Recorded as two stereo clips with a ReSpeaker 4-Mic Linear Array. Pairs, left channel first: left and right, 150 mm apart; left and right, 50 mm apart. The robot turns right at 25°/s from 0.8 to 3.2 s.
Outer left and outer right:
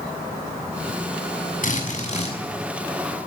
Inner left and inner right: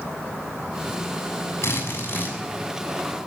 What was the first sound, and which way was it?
A drill, 65° left (ahead or behind).